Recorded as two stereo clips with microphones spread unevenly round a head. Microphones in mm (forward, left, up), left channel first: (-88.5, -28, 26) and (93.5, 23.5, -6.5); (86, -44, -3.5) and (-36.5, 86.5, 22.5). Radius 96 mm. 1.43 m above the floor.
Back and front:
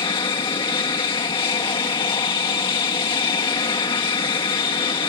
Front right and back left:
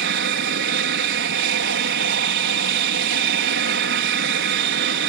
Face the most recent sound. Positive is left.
turn(degrees=130)